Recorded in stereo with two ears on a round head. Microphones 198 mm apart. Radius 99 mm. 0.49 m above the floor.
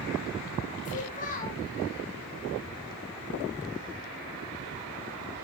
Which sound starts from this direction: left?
A child speaking, at 0.8 s.